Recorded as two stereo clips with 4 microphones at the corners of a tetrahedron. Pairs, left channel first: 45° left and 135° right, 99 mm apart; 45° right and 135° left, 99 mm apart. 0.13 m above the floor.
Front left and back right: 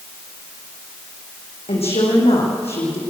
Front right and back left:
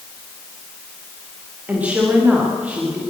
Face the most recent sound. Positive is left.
turn(degrees=60)